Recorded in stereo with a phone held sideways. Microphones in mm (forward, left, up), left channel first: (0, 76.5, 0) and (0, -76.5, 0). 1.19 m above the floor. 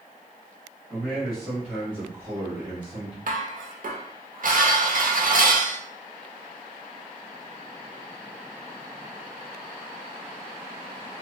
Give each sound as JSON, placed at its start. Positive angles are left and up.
{"t": 0.9, "sound": "a man speaking", "side_deg": 10, "distance_m": 1.8}
{"t": 3.3, "sound": "dishes clattering", "side_deg": -65, "distance_m": 0.6}